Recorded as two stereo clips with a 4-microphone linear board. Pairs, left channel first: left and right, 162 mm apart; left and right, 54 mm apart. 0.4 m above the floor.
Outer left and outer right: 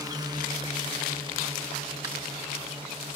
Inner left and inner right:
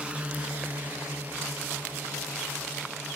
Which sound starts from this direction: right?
A drone, at 0.0 s.